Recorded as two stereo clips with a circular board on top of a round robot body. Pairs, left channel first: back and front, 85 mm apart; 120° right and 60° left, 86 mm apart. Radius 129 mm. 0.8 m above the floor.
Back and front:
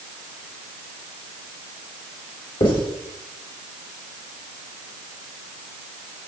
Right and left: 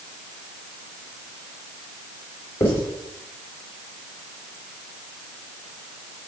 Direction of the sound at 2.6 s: Straight behind.